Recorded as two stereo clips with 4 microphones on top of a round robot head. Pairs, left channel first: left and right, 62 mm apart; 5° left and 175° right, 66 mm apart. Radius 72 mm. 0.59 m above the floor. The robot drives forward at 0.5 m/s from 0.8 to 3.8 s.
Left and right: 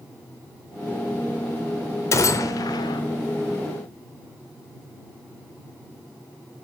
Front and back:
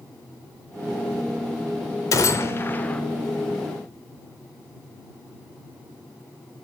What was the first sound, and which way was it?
A gunshot, 45° left.